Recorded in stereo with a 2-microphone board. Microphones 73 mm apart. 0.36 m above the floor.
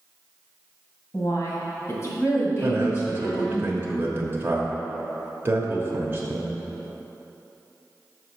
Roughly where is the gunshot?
I don't hear a gunshot.